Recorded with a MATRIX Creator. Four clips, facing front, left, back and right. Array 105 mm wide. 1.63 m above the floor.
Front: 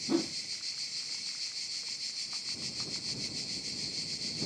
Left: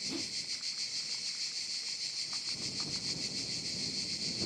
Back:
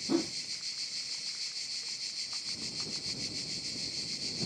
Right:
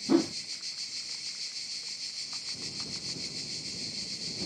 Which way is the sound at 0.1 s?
95° right.